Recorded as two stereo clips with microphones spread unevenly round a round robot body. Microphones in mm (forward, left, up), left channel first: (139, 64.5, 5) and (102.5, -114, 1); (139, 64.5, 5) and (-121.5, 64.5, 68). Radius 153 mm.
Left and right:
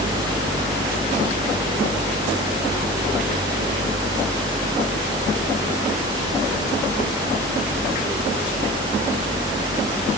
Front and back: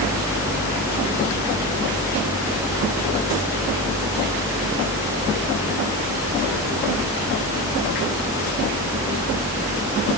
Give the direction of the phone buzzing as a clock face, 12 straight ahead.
I don't hear a phone buzzing.